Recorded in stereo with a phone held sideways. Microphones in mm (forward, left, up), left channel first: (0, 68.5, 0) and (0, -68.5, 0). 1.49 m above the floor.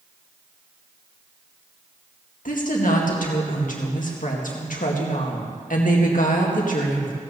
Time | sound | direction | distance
2.5 | a woman speaking | 75° left (ahead or behind) | 2 m